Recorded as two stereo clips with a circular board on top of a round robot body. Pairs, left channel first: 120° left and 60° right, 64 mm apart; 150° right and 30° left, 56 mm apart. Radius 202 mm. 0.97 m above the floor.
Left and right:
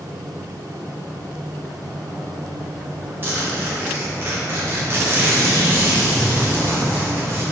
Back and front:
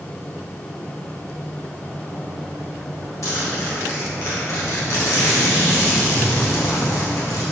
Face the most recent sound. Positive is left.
turn(degrees=-120)